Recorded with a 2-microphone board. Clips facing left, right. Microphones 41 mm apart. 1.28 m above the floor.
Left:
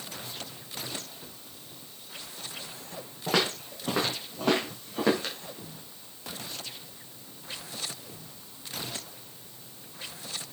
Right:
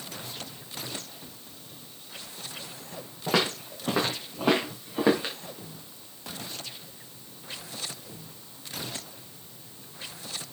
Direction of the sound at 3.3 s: 5° right (ahead or behind).